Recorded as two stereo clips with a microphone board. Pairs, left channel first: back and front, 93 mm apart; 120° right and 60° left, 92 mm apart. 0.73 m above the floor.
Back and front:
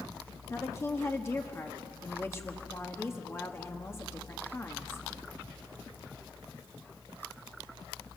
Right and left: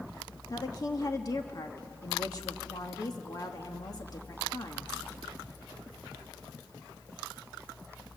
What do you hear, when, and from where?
0.5 s a woman speaking: 135° right, 1.4 m